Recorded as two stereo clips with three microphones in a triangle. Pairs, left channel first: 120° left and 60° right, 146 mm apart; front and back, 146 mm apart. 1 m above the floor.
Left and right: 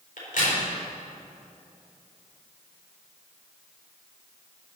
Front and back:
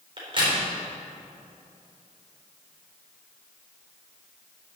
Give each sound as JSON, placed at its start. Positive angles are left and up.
{"t": 0.2, "sound": "a crack", "azimuth_deg": 130, "distance_m": 4.0}